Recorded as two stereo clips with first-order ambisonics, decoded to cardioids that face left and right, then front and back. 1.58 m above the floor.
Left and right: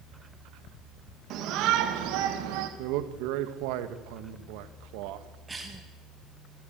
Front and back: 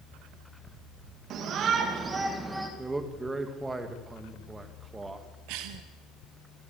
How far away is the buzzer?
I don't hear a buzzer.